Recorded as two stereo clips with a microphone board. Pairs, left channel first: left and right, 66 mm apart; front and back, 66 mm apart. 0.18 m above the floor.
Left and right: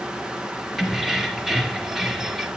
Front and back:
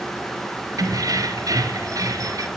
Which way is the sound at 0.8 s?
175° right.